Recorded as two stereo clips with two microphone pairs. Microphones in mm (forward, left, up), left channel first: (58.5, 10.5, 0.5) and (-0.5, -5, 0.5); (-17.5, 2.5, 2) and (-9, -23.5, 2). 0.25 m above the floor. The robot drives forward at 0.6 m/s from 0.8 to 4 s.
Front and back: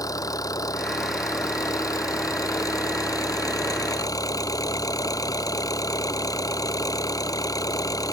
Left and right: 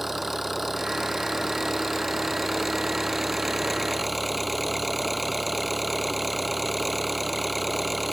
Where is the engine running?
10° left; by 8.1 s 15° left.